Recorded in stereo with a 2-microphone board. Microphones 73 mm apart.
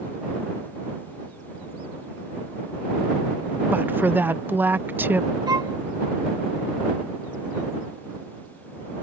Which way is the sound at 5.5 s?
80° right.